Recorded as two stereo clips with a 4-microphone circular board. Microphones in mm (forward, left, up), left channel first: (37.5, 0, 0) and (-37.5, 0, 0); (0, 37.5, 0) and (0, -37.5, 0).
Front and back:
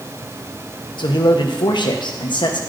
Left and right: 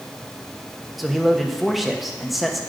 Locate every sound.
1.0 s a man speaking: straight ahead, 0.9 m